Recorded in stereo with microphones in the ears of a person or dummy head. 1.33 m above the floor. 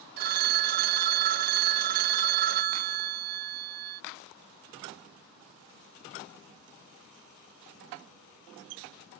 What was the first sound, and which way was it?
A phone ringing, 50° right (ahead or behind).